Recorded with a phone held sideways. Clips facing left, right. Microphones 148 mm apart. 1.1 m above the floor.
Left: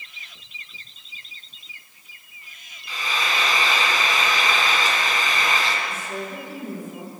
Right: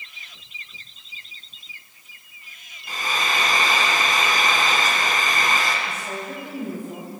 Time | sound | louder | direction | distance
2.9 | frying | right 1 dB | 45° right (ahead or behind) | 3.5 m
5.9 | a woman speaking | even | 65° right (ahead or behind) | 8 m